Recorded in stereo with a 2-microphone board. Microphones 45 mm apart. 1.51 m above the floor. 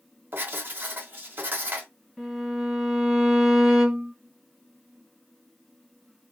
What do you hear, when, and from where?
0.3 s writing: 45° right (ahead or behind), 1.5 m
2.2 s a violin: 5° left (ahead or behind), 1.5 m